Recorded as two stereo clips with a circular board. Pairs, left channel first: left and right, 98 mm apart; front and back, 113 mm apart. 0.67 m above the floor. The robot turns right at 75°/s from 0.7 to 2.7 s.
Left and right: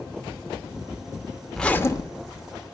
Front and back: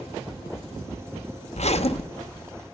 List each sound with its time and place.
1.5 s a zipper: straight ahead, 0.7 m; by 2.5 s 70° left, 0.7 m